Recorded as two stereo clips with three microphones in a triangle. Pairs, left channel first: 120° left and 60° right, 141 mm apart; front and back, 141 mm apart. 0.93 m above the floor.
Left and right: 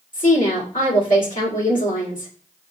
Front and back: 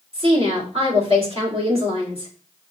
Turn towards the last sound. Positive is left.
turn(degrees=135)